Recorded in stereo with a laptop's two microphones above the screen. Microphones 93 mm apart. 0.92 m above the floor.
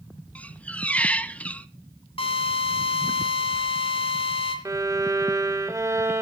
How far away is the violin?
About 1.3 m.